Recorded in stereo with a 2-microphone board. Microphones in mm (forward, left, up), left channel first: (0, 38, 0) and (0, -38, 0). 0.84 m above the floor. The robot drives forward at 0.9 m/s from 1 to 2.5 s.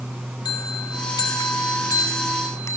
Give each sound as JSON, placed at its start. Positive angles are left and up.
{"t": 0.5, "sound": "a bell", "side_deg": 70, "distance_m": 1.3}